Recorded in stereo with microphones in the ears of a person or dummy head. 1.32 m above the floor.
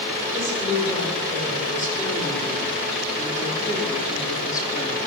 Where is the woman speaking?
20° left (ahead or behind), 5.5 m; by 5.0 s 25° left (ahead or behind), 2 m.